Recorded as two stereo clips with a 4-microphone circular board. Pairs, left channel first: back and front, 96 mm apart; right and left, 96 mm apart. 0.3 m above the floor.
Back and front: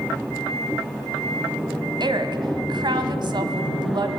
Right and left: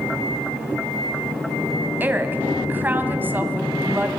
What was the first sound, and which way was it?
A woman speaking, 25° left.